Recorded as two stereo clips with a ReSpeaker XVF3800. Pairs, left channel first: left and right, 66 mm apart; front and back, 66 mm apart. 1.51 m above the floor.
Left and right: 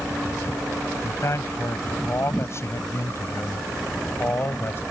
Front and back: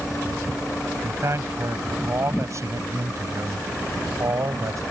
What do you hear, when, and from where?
1.0 s a man speaking: 135° left; by 4.8 s 145° left